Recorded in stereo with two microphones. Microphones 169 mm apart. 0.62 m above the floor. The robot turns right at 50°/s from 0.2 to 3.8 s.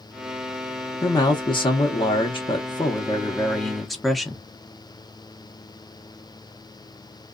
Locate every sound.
1.0 s a man speaking: 40° left, 0.6 m; by 4.4 s straight behind, 0.6 m